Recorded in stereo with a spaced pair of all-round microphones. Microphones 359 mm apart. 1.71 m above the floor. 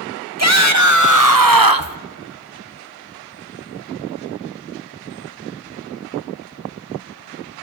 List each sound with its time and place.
0.4 s a shout: 45° right (ahead or behind), 2 m; by 2.0 s 70° right (ahead or behind), 1.0 m